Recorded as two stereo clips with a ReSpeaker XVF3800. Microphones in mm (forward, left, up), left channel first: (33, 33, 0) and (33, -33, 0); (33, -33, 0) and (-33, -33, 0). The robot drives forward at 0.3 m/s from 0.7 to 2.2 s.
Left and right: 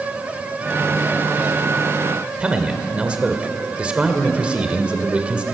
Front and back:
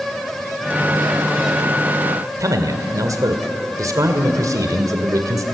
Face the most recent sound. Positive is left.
turn(degrees=-160)